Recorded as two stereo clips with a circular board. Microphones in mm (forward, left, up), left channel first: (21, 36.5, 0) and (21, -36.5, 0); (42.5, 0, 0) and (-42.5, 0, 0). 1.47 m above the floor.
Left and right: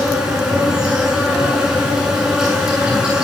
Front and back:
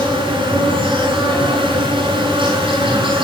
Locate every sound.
0.0 s an insect: 170° right, 8 m